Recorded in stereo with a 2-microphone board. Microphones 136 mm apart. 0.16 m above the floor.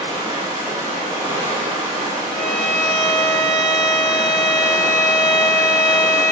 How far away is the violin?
About 1.6 m.